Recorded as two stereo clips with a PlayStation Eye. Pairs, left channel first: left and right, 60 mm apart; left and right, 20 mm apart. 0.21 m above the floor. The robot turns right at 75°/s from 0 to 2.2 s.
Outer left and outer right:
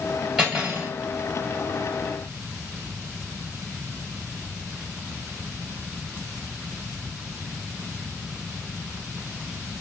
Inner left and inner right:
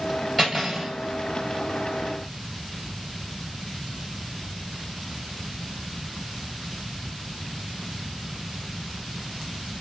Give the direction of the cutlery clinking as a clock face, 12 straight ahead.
6 o'clock.